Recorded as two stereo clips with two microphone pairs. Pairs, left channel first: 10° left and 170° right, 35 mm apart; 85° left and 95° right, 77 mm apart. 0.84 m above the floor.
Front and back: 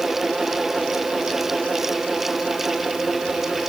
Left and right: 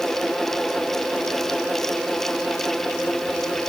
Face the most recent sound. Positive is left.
No sound to turn to.